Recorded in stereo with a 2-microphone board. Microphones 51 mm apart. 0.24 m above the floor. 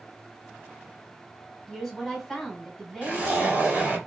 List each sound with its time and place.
1.7 s a woman speaking: 5° left (ahead or behind), 1.3 m
3.0 s a zipper: 30° right (ahead or behind), 2.5 m